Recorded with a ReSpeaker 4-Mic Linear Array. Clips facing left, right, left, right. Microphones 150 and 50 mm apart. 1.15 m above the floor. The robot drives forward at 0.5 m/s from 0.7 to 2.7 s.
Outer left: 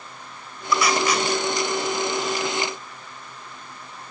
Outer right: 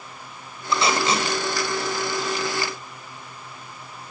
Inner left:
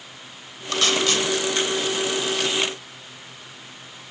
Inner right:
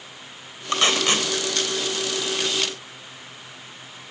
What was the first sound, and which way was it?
Tape being pulled, 25° right (ahead or behind).